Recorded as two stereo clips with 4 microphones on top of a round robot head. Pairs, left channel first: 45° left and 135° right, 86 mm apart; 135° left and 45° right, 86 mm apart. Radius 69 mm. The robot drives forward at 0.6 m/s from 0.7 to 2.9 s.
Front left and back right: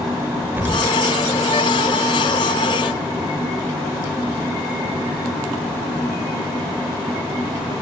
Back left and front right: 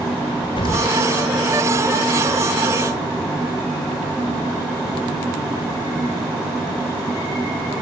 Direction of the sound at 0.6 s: 160° left.